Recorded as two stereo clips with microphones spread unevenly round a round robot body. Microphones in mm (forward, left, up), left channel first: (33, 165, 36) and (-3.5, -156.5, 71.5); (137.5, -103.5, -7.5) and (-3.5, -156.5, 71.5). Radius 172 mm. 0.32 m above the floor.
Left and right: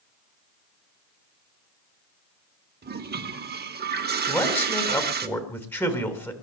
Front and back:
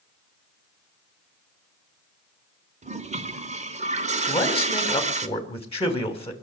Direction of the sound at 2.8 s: 110° right.